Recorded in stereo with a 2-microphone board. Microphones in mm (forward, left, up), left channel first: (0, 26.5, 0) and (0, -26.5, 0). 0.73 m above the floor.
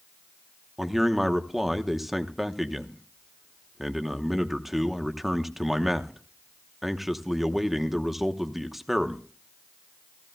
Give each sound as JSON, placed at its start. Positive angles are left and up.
{"t": 0.8, "sound": "a man speaking", "side_deg": -5, "distance_m": 0.9}